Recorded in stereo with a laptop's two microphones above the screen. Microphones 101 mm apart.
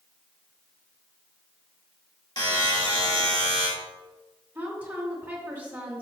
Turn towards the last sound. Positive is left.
turn(degrees=-20)  # may be behind; listen again after turning